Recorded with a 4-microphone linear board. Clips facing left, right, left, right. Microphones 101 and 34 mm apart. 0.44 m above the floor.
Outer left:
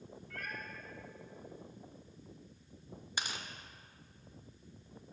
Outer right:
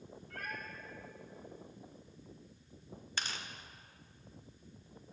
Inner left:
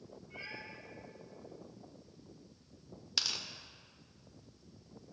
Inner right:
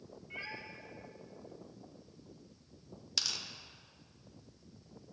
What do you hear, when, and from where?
0.3 s a cat meowing: 45° right (ahead or behind), 1.9 m
3.2 s tearing paper: 15° left (ahead or behind), 0.6 m